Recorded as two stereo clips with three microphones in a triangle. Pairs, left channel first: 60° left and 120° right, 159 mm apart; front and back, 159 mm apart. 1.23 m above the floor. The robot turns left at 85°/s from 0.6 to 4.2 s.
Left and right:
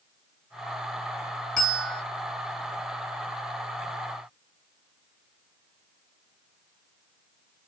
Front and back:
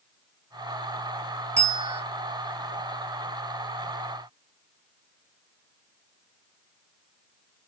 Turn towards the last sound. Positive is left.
turn(degrees=-80)